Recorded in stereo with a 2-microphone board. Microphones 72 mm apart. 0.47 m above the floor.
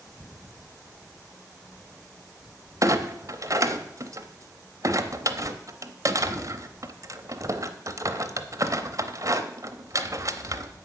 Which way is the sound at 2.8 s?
50° right (ahead or behind).